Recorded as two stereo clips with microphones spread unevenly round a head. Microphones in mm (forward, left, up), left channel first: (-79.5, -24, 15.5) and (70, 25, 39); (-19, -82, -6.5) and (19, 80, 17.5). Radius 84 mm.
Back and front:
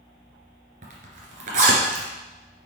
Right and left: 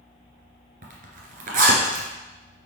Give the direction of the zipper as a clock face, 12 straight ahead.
10 o'clock.